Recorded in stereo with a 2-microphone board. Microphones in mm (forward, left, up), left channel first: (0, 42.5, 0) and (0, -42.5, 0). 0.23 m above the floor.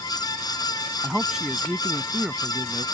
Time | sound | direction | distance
1.0 | a man speaking | 5° right (ahead or behind) | ?